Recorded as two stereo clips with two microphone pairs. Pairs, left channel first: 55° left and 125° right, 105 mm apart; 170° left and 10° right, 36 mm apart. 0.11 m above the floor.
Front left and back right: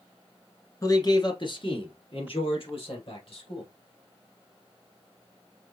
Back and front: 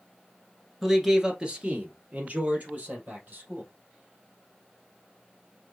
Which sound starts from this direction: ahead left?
A man speaking, at 0.8 s.